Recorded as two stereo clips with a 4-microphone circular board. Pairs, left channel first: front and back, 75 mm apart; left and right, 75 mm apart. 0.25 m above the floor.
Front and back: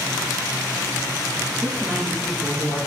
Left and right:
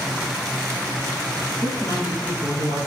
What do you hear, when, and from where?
1.6 s a woman speaking: 105° left, 4 m